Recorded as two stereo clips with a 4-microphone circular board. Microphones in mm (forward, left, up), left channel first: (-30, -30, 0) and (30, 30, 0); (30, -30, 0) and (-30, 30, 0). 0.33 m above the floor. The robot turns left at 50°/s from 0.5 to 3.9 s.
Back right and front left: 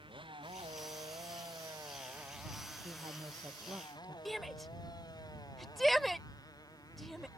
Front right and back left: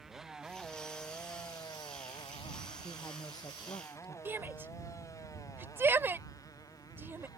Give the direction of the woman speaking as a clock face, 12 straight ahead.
11 o'clock.